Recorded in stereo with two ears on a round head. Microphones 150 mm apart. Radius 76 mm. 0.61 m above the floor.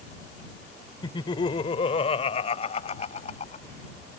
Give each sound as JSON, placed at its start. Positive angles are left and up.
{"t": 1.0, "sound": "laughter", "side_deg": 25}